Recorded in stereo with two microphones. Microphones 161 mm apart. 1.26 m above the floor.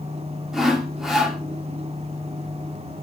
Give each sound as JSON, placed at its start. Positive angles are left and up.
{"t": 0.5, "sound": "sawing", "side_deg": 0, "distance_m": 1.4}